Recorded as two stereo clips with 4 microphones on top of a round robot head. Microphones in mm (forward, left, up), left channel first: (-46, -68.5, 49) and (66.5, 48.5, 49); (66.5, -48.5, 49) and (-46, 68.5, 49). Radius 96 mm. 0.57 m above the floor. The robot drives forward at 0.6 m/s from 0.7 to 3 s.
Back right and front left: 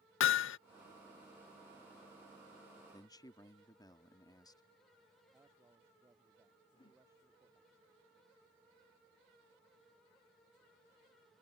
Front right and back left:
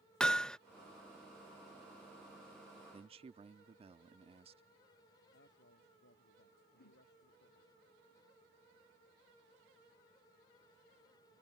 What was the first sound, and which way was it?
Hammering, 135° right.